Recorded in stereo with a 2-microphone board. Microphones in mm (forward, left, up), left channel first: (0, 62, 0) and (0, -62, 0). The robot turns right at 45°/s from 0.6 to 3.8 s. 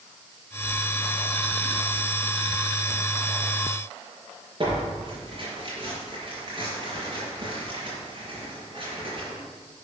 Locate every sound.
4.6 s tearing paper: 45° right (ahead or behind), 4.5 m